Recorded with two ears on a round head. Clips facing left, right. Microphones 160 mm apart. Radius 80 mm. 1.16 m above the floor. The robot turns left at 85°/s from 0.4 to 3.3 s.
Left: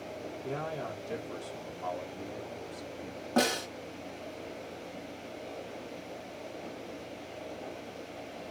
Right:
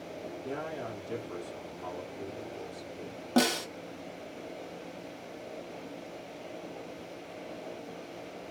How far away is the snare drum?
About 1.5 m.